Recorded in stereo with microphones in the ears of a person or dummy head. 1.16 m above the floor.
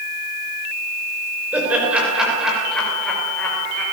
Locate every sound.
1.5 s laughter: 10° right (ahead or behind), 5.5 m; by 3.8 s 10° left (ahead or behind), 5.5 m